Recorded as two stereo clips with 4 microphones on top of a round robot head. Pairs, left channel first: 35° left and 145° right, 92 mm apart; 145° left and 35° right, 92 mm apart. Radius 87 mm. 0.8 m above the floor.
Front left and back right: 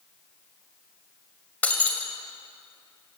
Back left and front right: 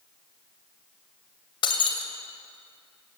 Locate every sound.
1.6 s breaking glass: 110° left, 2 m